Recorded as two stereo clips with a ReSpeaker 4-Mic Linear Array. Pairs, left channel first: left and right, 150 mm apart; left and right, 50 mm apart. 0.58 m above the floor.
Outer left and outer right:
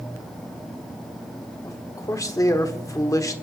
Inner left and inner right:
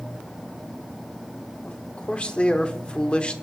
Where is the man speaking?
25° left (ahead or behind), 1.2 m.